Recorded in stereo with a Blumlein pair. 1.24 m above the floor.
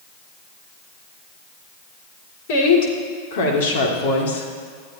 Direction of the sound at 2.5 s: 50° left.